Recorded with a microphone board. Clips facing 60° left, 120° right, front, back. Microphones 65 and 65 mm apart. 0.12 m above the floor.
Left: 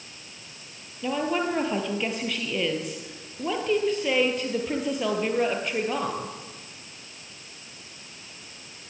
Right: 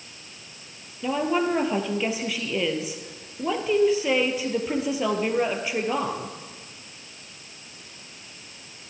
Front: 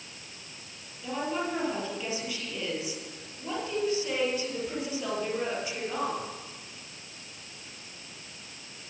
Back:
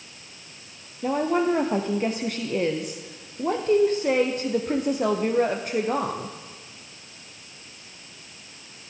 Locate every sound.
1.0 s a woman speaking: 155° left, 2.5 m